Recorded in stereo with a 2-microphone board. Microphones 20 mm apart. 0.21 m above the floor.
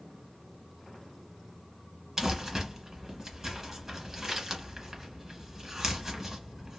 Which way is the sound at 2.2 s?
25° right (ahead or behind).